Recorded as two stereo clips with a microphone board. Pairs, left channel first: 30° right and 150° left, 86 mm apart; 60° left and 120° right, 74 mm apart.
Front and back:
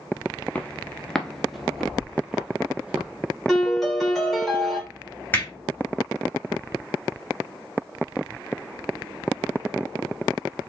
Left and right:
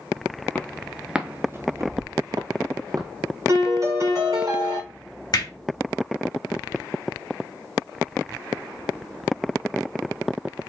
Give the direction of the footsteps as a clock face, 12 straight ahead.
11 o'clock.